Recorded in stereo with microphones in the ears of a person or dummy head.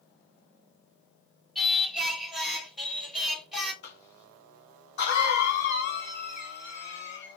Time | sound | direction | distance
1.6 | singing | 5° right (ahead or behind) | 1.0 m
3.8 | a cough | 60° left (ahead or behind) | 1.5 m